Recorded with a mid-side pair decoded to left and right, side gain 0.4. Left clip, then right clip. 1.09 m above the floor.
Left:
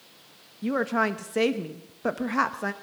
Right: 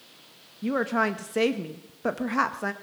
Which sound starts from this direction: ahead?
A woman speaking, at 0.6 s.